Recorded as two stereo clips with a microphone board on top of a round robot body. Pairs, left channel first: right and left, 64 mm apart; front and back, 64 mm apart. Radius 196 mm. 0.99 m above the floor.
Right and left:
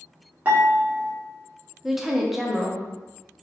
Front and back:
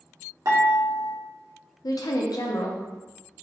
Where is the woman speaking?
5° left, 0.9 m.